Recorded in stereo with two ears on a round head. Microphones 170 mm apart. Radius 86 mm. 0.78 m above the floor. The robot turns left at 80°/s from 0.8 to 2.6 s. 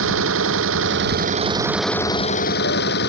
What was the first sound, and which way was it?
An engine running, 95° right.